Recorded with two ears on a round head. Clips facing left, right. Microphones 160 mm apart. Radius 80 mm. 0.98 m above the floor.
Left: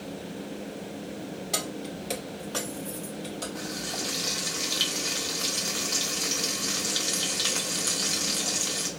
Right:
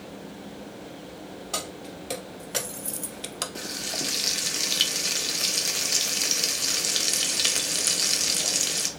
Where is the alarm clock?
No alarm clock in this recording.